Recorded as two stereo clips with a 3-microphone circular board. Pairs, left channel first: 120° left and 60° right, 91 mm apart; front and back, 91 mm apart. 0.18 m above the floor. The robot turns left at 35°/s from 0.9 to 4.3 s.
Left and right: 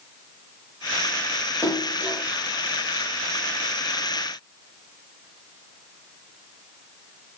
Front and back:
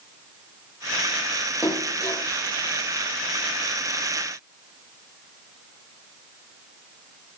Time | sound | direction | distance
1.6 | a splash | 65° left | 4 m